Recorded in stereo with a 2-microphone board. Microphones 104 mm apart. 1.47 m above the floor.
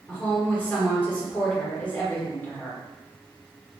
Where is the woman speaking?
10° left (ahead or behind), 1.0 m.